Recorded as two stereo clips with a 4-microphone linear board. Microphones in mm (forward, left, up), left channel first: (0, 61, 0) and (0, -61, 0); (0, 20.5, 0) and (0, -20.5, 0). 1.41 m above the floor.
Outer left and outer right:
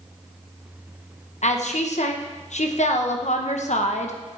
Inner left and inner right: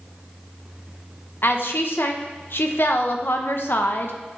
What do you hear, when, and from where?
1.4 s a woman speaking: 70° left (ahead or behind), 1.0 m